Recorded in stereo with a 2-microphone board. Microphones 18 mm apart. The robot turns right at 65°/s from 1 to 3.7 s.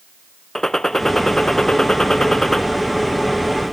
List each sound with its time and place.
0.6 s a gunshot: 45° left, 0.6 m; by 2.6 s 150° left, 0.6 m